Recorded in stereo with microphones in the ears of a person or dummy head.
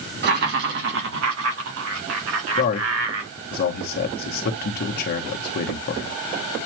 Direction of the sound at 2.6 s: 45° left (ahead or behind).